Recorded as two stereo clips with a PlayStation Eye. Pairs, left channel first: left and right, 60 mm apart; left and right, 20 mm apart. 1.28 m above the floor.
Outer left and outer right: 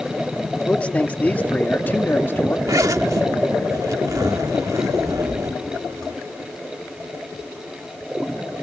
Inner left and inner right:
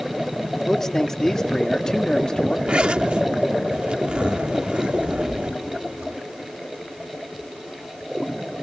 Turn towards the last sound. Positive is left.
turn(degrees=-70)  # may be behind; listen again after turning